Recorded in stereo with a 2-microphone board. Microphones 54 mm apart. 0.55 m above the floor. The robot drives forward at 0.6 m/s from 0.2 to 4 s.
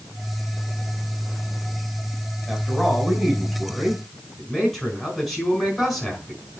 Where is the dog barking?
I don't hear a dog barking.